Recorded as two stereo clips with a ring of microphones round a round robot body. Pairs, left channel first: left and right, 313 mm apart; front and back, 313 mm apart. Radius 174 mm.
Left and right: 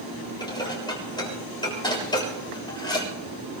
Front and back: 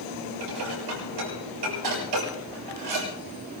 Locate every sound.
0.4 s dishes clattering: 165° left, 7 m